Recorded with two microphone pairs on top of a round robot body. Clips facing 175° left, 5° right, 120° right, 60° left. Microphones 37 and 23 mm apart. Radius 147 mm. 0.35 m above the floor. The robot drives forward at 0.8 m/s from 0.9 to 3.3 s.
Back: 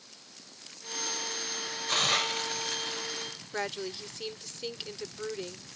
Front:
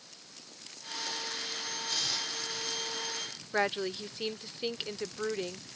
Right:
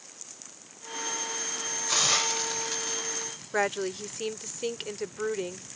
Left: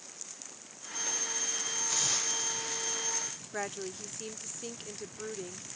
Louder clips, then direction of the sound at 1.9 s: Back 10 dB, right 8 dB; 165° right.